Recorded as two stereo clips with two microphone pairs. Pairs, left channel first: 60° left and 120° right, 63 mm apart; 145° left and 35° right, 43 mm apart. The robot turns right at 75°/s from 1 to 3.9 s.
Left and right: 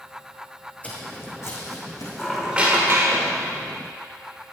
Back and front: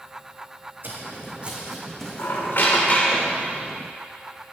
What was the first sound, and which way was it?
Footsteps, 5° right.